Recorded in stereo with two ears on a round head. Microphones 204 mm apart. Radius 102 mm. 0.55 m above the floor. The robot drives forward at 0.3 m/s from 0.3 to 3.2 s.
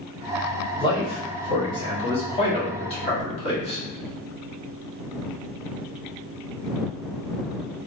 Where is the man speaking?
20° left (ahead or behind), 1.4 m; by 3.8 s 30° left (ahead or behind), 1.1 m.